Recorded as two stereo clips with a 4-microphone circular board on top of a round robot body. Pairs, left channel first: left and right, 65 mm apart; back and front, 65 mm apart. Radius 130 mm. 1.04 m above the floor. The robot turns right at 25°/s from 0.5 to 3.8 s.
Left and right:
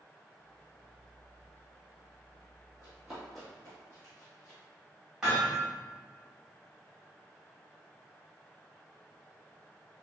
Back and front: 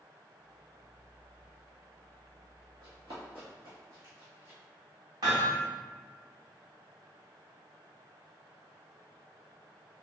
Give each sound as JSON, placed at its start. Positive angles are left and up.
{"t": 2.8, "sound": "running footsteps", "azimuth_deg": -25, "distance_m": 1.9}
{"t": 5.2, "sound": "hammering", "azimuth_deg": -5, "distance_m": 1.8}